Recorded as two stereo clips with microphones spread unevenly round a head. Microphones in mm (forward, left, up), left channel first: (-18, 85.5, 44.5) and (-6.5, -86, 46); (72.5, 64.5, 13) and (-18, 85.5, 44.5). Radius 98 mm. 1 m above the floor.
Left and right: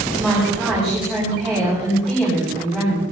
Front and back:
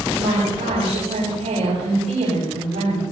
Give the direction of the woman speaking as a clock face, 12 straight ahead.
6 o'clock.